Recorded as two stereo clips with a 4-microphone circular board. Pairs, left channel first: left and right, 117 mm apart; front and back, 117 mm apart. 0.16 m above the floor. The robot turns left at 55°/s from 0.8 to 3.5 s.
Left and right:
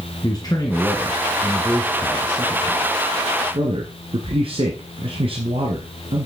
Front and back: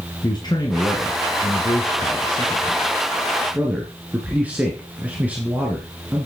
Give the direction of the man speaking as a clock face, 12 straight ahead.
11 o'clock.